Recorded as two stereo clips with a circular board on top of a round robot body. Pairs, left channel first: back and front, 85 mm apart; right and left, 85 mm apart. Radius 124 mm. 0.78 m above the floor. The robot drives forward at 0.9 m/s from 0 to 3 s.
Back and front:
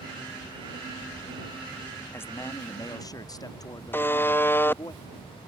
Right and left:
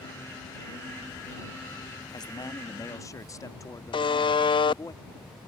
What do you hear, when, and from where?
2.1 s a man speaking: 120° right; by 4.9 s 140° right
3.9 s a buzzer: 115° right